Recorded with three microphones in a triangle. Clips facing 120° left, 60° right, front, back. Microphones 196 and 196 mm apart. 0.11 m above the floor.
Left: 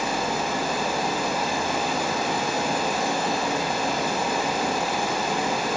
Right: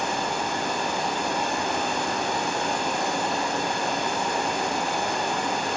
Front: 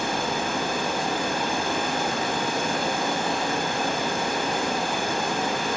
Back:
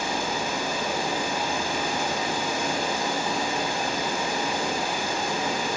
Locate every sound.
0.0 s running water: 35° left, 6 m